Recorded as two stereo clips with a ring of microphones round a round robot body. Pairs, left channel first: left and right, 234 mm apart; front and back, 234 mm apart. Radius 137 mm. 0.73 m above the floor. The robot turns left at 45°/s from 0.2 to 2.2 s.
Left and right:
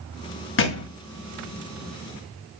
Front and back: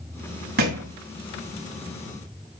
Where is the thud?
125° left, 1.7 m; by 0.9 s 110° left, 1.7 m.